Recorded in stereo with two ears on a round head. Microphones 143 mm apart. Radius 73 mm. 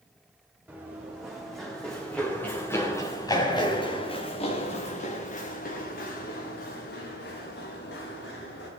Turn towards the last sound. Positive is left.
turn(degrees=85)